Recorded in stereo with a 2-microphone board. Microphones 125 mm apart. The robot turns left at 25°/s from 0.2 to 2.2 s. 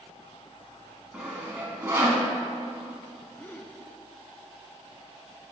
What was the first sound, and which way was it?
Sawing, 5° right (ahead or behind).